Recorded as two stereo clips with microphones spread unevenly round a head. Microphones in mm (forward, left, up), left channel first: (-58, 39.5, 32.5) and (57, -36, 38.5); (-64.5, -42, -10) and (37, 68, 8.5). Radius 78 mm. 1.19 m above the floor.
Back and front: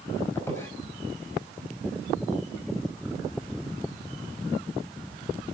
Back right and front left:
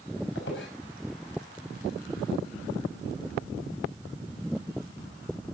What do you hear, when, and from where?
0.3 s a squeak: 140° right, 5.5 m